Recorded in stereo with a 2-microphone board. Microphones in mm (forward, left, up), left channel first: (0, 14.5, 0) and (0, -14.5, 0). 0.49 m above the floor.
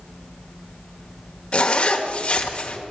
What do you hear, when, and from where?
1.5 s a zipper: 40° left (ahead or behind), 0.9 m